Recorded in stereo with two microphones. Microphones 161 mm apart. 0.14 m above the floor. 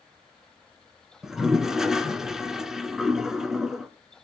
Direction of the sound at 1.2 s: 5° right (ahead or behind).